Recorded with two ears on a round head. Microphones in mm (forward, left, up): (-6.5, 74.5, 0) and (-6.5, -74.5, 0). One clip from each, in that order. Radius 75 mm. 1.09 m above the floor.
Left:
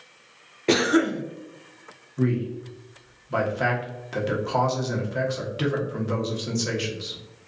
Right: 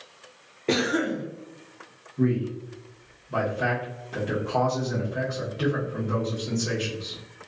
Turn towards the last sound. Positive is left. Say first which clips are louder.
# even
turn(degrees=50)  # may be behind; listen again after turning